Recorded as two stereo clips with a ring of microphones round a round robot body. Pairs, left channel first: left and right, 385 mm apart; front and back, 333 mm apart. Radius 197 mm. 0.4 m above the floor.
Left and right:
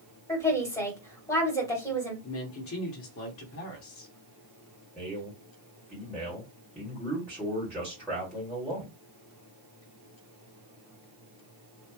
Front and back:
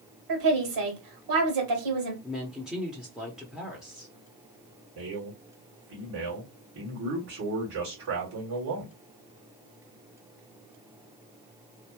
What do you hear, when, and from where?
0.3 s a woman speaking: 170° left, 2.5 m
2.2 s a woman speaking: 95° left, 1.1 m
5.0 s a man speaking: straight behind, 2 m